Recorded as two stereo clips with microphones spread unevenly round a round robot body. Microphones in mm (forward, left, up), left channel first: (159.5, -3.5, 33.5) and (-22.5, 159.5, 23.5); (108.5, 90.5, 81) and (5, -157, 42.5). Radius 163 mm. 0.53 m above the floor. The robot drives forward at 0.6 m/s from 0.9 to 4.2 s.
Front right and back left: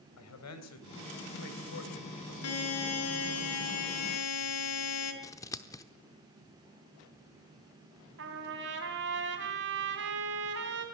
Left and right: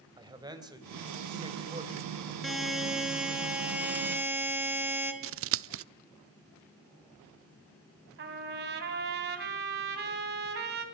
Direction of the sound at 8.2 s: 165° right.